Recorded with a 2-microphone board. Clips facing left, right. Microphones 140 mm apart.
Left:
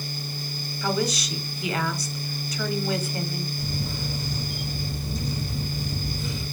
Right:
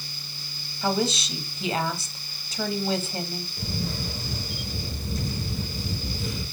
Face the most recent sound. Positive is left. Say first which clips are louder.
# even
turn(degrees=-55)  # may be behind; listen again after turning